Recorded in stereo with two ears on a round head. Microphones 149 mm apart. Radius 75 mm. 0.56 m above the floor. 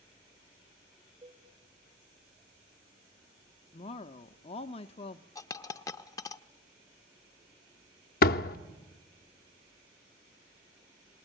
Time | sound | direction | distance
1.2 | a cowbell | 30° right (ahead or behind) | 2.5 m
3.7 | a woman speaking | 35° left (ahead or behind) | 0.7 m
5.3 | a dropped coin | 20° left (ahead or behind) | 0.6 m
8.2 | a door slam | 60° left (ahead or behind) | 0.7 m